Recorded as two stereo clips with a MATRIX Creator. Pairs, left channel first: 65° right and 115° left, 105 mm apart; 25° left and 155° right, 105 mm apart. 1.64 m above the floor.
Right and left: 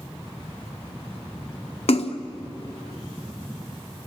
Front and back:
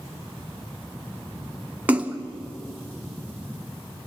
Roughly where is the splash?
Right.